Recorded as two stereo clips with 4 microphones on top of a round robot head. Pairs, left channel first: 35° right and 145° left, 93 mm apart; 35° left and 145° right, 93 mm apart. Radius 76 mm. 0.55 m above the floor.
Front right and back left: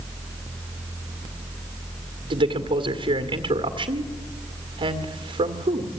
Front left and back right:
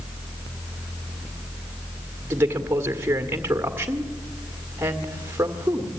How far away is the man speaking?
About 1.9 m.